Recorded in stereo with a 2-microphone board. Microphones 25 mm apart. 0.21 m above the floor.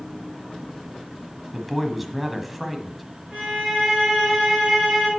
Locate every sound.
1.5 s a man speaking: 5° right (ahead or behind), 1.0 m
3.3 s a violin: 30° right (ahead or behind), 5 m